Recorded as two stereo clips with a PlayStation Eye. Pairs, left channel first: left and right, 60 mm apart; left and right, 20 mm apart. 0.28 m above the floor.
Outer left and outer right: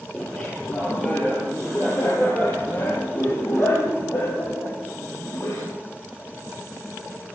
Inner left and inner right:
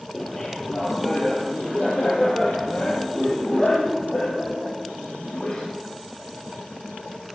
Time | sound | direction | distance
0.1 | laughter | 15° left (ahead or behind) | 6 m